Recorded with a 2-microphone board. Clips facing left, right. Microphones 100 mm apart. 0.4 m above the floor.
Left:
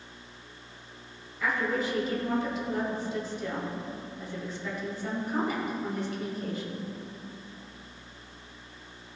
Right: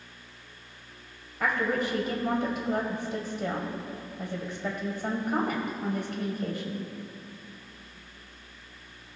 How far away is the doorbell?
No doorbell in this recording.